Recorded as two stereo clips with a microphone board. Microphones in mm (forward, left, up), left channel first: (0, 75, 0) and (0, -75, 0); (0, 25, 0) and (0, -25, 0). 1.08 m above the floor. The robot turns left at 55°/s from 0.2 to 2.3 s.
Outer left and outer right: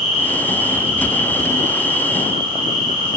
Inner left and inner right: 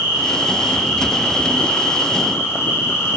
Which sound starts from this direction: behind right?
An insect, at 0.0 s.